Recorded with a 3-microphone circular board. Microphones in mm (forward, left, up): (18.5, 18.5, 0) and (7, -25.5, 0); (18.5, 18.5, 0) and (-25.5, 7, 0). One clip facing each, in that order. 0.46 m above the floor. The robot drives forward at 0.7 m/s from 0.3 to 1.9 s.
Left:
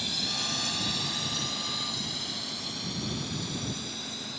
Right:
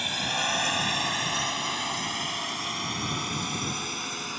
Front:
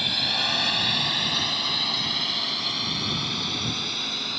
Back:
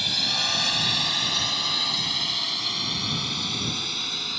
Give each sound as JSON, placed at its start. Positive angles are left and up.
{"t": 0.0, "sound": "a drone", "azimuth_deg": -65}